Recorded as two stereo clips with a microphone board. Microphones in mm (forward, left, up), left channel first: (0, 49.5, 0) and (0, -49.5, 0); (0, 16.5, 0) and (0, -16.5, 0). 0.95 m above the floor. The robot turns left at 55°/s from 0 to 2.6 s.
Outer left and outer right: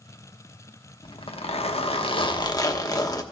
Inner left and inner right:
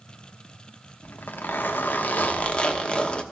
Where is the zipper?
125° left, 1.0 m; by 3.2 s 35° left, 1.0 m.